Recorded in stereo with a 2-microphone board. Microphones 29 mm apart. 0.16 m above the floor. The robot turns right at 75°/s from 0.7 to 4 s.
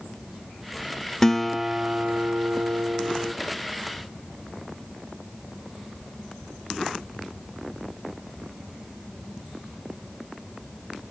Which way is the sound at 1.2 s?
160° left.